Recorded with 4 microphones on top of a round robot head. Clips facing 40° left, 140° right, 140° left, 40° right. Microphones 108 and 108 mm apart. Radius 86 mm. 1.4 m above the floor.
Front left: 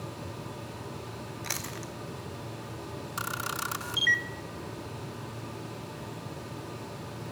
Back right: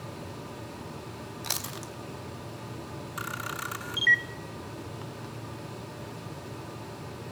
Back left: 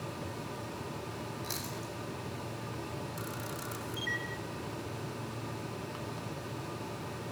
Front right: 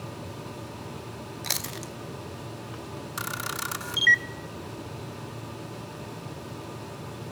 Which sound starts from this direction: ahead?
A camera shutter, at 3.2 s.